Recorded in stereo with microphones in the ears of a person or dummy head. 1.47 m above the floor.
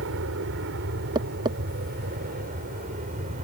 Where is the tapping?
25° right (ahead or behind).